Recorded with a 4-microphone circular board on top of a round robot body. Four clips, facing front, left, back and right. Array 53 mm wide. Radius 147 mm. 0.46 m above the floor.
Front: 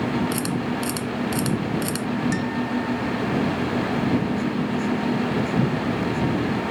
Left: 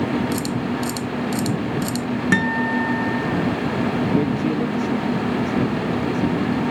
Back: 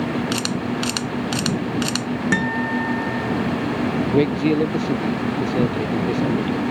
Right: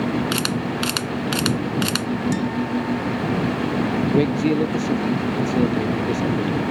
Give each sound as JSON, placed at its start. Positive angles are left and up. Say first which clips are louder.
{"t": 0.3, "sound": "a camera shutter", "louder": "even, back 1 dB", "azimuth_deg": -115}
{"t": 2.3, "sound": "a guitar", "louder": "left 4 dB, back 4 dB", "azimuth_deg": 120}
{"t": 4.1, "sound": "a man speaking", "louder": "right 2 dB, back 5 dB", "azimuth_deg": -165}